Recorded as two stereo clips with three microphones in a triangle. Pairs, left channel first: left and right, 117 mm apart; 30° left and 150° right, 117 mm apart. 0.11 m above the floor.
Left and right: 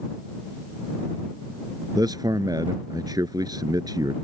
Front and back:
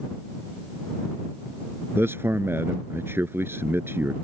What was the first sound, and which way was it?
A man speaking, 95° right.